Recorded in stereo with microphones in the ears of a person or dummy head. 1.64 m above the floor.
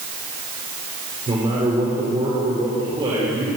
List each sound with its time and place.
1.3 s a man speaking: 25° right (ahead or behind), 7 m